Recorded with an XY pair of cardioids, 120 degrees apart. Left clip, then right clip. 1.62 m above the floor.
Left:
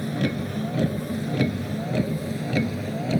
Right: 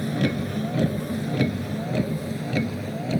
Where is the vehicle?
5° right; by 3.2 s 10° left.